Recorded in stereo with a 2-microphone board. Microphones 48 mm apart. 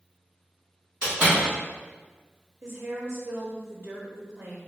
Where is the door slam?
20° right (ahead or behind), 1.7 m.